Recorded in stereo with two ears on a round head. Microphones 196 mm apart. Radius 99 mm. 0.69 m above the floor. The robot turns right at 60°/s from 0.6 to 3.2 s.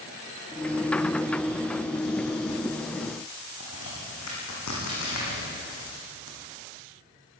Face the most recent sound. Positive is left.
turn(degrees=85)